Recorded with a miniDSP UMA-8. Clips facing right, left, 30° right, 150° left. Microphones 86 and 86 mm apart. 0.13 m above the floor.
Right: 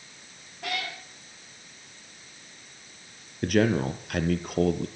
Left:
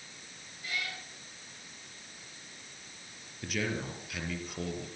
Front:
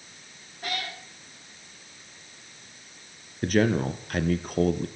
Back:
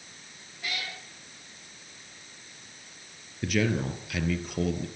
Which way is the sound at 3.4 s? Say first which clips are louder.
Right 12 dB, front 4 dB; 70° right.